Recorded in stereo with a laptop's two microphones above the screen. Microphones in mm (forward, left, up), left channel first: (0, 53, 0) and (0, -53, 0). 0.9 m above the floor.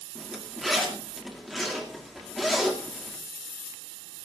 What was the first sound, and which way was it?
A zipper, centre (ahead or behind).